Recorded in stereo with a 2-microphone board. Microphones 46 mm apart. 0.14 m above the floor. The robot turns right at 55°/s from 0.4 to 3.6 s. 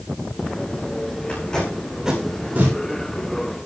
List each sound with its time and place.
1.3 s tape being pulled: 30° left (ahead or behind), 9.5 m; by 2.8 s 50° right (ahead or behind), 9.5 m